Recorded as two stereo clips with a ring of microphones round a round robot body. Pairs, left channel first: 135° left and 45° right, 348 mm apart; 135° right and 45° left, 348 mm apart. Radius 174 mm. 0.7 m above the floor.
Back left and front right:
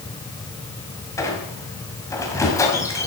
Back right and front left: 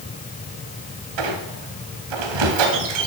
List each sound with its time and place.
1.2 s a squeak: 55° left, 2 m